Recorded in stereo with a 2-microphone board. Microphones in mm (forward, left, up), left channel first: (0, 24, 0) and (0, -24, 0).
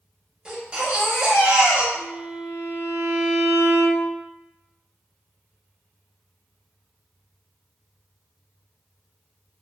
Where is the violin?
35° right (ahead or behind), 1.3 m.